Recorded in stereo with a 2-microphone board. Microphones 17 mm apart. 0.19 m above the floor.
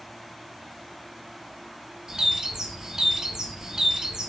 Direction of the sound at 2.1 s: 40° right (ahead or behind).